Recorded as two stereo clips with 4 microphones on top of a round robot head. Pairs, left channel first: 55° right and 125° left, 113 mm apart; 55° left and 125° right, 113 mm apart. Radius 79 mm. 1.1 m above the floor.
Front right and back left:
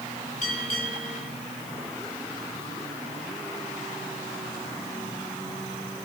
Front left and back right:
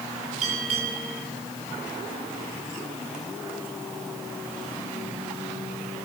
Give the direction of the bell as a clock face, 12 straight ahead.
3 o'clock.